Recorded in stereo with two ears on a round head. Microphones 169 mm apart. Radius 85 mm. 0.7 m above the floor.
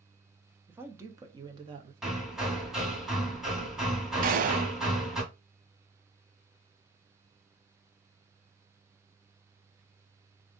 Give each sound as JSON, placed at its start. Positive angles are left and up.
{"t": 0.7, "sound": "a woman speaking", "side_deg": -10, "distance_m": 1.1}
{"t": 2.0, "sound": "hammering", "side_deg": 0, "distance_m": 2.0}
{"t": 4.2, "sound": "a gunshot", "side_deg": -45, "distance_m": 0.9}